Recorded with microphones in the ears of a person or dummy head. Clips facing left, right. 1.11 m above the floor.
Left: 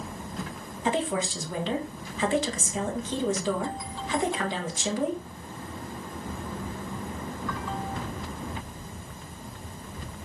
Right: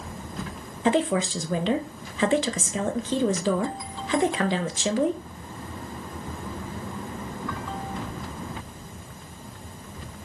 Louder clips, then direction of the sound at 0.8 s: Right 5 dB; 55° right (ahead or behind).